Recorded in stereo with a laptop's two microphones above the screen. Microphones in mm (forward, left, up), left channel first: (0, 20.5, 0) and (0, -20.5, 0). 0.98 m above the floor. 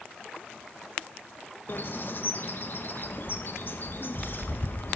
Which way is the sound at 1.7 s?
50° left (ahead or behind).